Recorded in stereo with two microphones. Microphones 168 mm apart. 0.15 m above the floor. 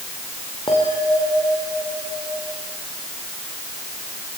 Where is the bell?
30° left (ahead or behind), 5.5 m.